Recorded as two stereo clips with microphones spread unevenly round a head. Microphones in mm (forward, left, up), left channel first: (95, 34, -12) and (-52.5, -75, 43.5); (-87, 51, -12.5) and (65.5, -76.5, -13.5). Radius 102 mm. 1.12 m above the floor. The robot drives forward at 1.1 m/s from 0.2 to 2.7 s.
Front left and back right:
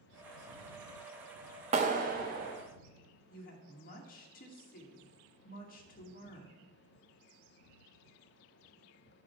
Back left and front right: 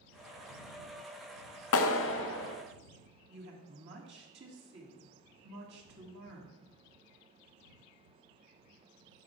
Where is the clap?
155° left, 0.6 m; by 2.6 s 170° left, 1.5 m.